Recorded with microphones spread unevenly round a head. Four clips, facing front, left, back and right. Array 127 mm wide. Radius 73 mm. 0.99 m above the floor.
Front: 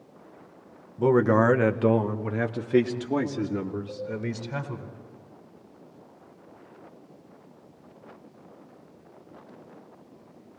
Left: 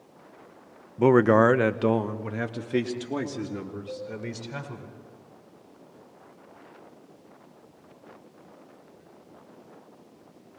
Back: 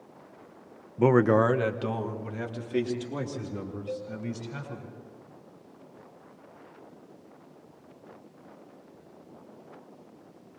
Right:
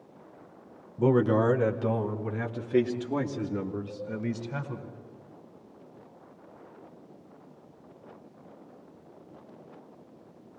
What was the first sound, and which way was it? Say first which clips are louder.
A man speaking: left 5 dB, front 1 dB; 145° left.